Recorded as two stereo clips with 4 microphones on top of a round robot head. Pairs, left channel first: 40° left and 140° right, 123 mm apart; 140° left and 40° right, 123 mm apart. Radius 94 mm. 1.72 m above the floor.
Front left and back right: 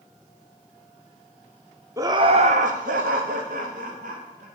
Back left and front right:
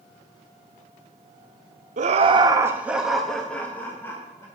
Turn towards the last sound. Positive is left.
turn(degrees=-150)